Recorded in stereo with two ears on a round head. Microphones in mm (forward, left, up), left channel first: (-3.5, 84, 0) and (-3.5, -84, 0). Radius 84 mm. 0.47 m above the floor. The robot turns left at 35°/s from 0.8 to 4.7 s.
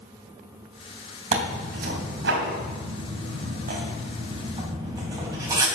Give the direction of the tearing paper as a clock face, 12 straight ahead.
1 o'clock.